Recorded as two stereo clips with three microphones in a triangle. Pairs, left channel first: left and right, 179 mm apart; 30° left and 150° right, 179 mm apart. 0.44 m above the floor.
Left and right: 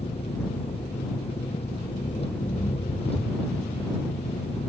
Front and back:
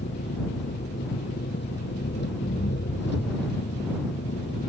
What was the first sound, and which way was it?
An engine running, 35° left.